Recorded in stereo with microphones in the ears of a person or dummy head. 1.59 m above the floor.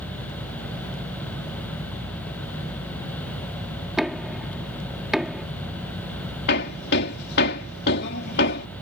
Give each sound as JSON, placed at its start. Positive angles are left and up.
{"t": 4.0, "sound": "knocking", "side_deg": -5}
{"t": 6.5, "sound": "hammering", "side_deg": 60}